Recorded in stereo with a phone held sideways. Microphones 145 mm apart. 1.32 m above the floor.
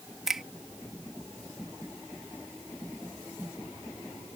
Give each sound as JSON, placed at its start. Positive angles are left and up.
{"t": 0.3, "sound": "a finger snap", "side_deg": 0}